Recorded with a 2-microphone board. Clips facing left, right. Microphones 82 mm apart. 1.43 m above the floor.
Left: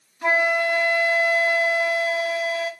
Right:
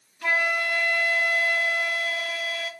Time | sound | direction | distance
0.2 | a flute | 25° left (ahead or behind) | 1.0 m